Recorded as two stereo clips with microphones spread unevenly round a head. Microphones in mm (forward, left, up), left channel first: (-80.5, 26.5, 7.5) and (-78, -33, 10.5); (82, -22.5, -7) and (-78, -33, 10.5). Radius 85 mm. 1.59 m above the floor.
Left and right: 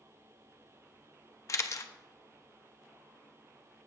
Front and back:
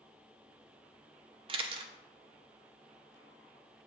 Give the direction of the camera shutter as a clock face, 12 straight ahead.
8 o'clock.